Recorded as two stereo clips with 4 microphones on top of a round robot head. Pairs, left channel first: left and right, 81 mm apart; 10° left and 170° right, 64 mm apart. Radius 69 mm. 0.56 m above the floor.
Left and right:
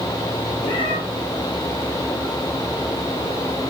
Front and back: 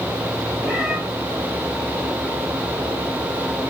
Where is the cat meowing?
110° left, 4.5 m.